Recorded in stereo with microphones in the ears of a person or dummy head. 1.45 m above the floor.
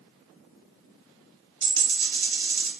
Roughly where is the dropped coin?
Right.